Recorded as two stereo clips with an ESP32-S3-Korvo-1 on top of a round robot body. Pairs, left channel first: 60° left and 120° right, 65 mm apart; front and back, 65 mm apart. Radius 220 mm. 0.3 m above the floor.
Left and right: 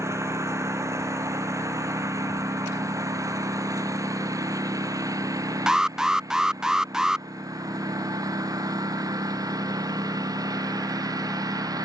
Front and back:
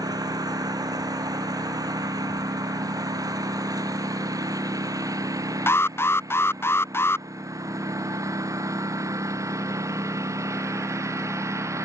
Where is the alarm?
40° right.